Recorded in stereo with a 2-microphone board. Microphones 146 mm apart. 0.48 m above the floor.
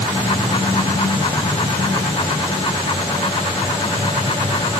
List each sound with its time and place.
Only background noise.